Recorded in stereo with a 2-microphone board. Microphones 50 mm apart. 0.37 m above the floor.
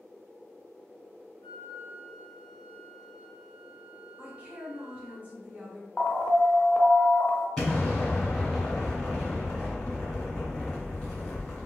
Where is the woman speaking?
30° right (ahead or behind), 1.5 m.